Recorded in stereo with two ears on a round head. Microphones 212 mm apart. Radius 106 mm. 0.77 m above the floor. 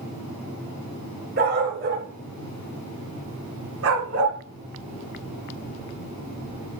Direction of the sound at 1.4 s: 45° right (ahead or behind).